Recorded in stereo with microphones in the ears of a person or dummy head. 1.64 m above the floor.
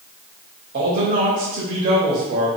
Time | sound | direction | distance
0.7 | a man speaking | 45° right (ahead or behind) | 1.0 m